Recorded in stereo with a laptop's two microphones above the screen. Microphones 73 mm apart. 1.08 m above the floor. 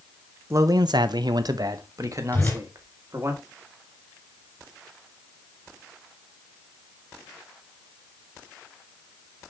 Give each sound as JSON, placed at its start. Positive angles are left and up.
{"t": 0.5, "sound": "a man speaking", "side_deg": -40, "distance_m": 0.5}
{"t": 2.3, "sound": "a whoosh", "side_deg": 25, "distance_m": 3.0}